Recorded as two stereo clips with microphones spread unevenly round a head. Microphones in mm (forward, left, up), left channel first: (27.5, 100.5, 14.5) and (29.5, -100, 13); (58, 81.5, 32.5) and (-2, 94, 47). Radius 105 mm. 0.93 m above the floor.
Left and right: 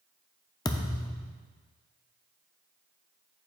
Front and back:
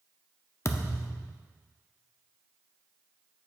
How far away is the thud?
About 0.5 m.